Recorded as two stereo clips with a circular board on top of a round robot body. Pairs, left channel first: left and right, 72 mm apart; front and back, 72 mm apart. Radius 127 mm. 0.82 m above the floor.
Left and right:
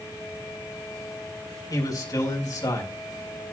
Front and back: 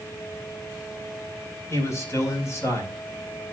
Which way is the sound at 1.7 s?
55° left.